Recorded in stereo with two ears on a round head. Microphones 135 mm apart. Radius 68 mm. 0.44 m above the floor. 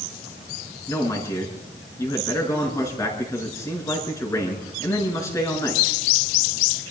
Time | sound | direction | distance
0.9 | a man speaking | 20° left (ahead or behind) | 5.5 m